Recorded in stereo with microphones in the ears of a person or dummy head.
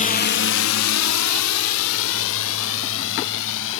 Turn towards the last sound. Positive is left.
turn(degrees=60)  # may be behind; listen again after turning